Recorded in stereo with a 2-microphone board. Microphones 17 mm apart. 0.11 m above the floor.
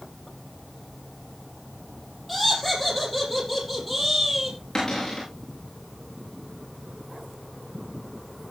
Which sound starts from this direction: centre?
Laughter, at 2.3 s.